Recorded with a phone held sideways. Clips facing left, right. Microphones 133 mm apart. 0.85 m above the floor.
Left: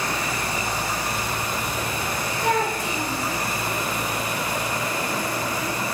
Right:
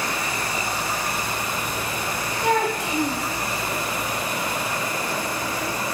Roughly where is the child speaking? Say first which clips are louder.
Right 2 dB; right.